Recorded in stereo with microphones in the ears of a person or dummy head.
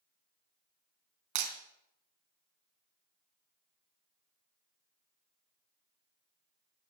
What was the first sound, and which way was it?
Breaking glass, 65° right (ahead or behind).